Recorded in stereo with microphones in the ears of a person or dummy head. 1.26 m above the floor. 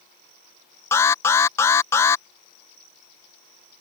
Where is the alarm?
10° left (ahead or behind).